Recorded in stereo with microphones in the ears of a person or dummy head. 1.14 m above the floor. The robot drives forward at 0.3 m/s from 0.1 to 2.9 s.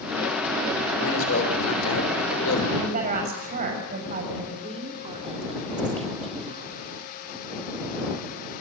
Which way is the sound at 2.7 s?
45° right (ahead or behind).